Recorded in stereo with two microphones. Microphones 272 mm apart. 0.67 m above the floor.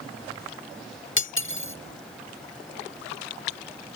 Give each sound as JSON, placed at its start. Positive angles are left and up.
{"t": 1.2, "sound": "cutlery clinking", "side_deg": 45}